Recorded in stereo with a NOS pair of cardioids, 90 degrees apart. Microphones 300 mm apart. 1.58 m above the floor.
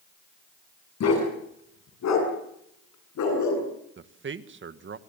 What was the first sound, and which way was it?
A dog barking, 55° left.